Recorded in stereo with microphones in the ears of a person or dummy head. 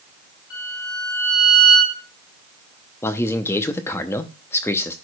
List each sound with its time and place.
0.5 s a violin: 15° left (ahead or behind), 4 m
3.0 s a man speaking: 15° left (ahead or behind), 0.6 m